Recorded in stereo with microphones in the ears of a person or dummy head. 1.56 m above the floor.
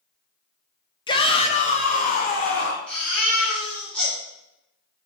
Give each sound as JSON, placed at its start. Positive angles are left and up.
{"t": 1.1, "sound": "a shout", "side_deg": 25, "distance_m": 0.7}
{"t": 2.9, "sound": "a baby crying", "side_deg": 5, "distance_m": 3.0}